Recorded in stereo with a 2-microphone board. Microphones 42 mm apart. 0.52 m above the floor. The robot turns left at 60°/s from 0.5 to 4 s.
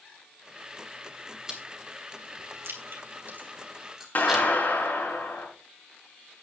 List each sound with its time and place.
1.5 s chewing: 20° right (ahead or behind), 3 m; by 4.5 s 10° right (ahead or behind), 3 m
4.2 s a clap: 50° left (ahead or behind), 6 m